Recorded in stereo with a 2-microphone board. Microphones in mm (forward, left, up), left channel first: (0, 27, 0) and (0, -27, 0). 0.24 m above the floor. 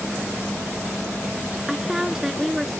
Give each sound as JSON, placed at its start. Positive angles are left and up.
{"t": 1.7, "sound": "a woman speaking", "side_deg": -10}